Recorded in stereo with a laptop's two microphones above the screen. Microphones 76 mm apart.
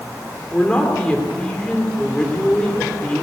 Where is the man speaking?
15° left (ahead or behind), 3 m.